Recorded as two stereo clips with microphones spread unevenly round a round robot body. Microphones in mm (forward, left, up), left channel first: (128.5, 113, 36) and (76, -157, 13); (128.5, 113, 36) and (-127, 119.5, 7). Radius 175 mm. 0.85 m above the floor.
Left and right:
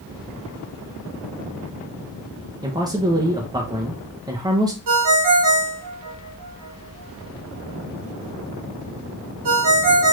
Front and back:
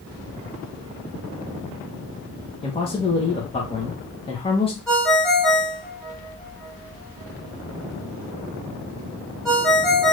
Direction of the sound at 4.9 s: 90° right.